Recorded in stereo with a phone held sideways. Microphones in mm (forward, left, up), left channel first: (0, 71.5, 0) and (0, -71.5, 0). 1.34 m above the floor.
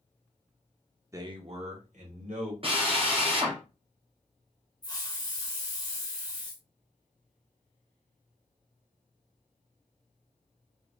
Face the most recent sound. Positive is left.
turn(degrees=25)  # may be behind; listen again after turning